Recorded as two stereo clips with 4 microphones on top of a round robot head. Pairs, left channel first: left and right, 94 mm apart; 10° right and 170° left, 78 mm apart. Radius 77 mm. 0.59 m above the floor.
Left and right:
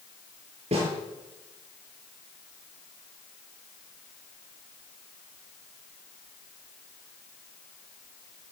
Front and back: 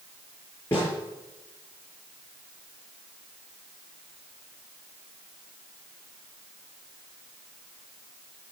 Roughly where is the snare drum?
Right.